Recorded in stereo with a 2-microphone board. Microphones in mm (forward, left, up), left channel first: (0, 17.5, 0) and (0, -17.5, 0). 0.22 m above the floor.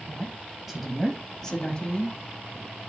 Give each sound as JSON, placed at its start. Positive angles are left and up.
{"t": 0.1, "sound": "a woman speaking", "side_deg": -25, "distance_m": 1.4}